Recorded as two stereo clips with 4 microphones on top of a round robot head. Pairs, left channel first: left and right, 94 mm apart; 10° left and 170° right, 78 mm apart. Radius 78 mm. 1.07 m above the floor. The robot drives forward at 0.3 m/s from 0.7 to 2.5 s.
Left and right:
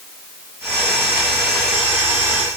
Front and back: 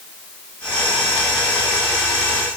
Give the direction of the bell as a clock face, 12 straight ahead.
No bell in this recording.